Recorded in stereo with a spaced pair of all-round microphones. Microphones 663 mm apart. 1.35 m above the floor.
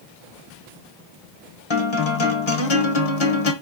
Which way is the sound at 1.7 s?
45° left (ahead or behind).